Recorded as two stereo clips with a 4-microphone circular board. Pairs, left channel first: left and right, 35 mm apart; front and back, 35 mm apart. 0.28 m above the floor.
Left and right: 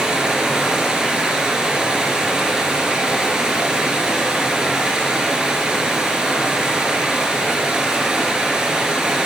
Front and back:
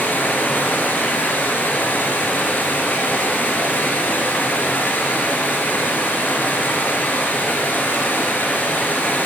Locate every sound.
0.0 s running water: 25° right, 3 m